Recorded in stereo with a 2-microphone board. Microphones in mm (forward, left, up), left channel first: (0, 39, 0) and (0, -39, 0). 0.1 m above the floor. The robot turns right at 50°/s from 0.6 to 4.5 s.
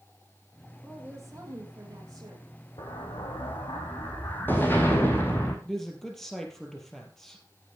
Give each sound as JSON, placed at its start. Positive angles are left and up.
{"t": 0.8, "sound": "a woman speaking", "azimuth_deg": -165, "distance_m": 4.0}
{"t": 2.8, "sound": "an explosion", "azimuth_deg": 65, "distance_m": 2.5}
{"t": 5.7, "sound": "a man speaking", "side_deg": 5, "distance_m": 3.0}